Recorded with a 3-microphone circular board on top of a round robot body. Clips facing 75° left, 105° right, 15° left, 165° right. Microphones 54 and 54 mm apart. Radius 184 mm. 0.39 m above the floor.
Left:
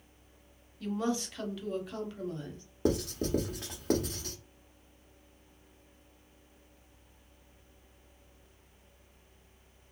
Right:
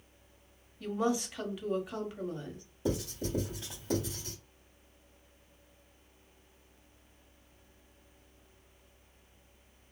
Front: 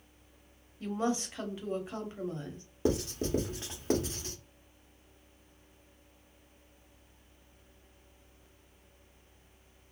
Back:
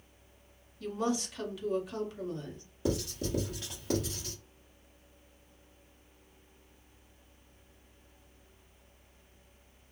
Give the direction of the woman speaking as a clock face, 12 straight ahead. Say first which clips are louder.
Right 1 dB, even; 1 o'clock.